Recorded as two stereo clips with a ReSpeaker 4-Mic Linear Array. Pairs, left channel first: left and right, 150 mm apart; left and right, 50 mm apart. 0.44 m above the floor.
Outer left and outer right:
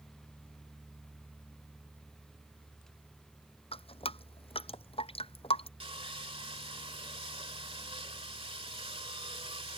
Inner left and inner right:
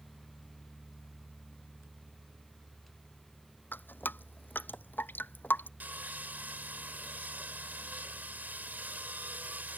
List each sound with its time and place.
3.7 s dripping: 40° left (ahead or behind)
5.8 s sawing: 40° right (ahead or behind)